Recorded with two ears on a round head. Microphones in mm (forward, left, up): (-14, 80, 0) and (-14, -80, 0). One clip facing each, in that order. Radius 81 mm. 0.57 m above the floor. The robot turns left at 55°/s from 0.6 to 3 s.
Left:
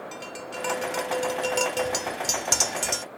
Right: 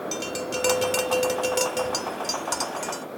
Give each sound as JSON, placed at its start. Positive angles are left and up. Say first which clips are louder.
{"t": 0.1, "sound": "tapping", "louder": "right 7 dB", "azimuth_deg": -110}